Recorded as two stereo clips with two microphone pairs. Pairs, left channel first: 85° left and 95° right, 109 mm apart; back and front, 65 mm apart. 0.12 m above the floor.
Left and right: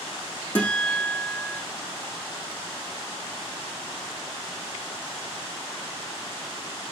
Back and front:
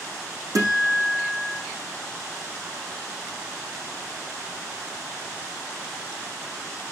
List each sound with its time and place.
0.6 s a guitar: 10° left, 4.5 m